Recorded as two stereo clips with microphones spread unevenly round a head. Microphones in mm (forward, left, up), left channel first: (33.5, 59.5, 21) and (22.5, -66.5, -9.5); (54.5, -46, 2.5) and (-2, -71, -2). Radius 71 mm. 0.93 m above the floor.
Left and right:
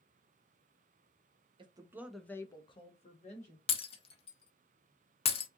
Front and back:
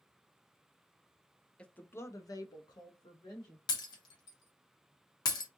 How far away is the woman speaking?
About 0.7 m.